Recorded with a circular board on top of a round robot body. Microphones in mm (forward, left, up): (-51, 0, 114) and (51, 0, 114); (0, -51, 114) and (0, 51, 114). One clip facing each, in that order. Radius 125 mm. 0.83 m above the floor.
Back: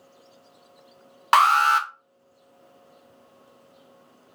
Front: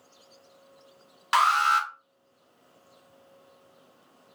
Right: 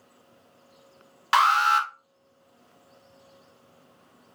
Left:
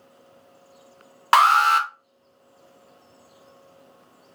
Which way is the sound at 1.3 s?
135° left.